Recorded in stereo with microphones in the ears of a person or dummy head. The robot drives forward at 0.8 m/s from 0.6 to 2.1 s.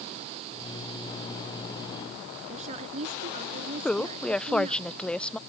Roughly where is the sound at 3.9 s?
Centre.